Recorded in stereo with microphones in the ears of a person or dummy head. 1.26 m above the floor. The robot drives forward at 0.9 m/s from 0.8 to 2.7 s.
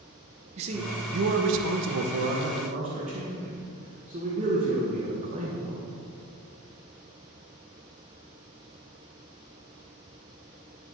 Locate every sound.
0.6 s a man speaking: 35° right (ahead or behind), 1.1 m; by 5.8 s 40° right (ahead or behind), 1.1 m